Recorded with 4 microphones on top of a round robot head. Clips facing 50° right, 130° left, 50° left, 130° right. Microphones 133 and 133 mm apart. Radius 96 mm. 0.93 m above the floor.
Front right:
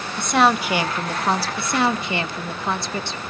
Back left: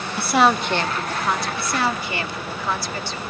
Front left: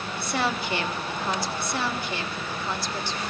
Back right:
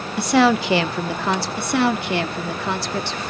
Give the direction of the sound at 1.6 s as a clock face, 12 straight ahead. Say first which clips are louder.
Front right 2 dB, back right 9 dB; 4 o'clock.